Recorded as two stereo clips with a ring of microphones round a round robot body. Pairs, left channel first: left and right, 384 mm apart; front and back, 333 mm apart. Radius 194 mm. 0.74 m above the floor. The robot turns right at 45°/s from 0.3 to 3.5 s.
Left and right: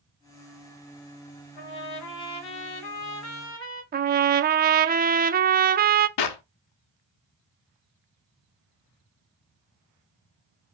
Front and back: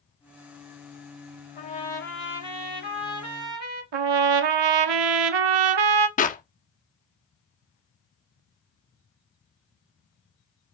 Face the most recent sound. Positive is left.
turn(degrees=65)